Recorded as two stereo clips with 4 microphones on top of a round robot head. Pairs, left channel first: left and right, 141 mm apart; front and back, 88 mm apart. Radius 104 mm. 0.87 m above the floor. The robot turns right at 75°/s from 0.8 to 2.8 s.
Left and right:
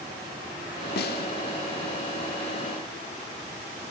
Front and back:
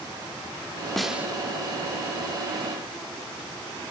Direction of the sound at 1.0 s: 85° left.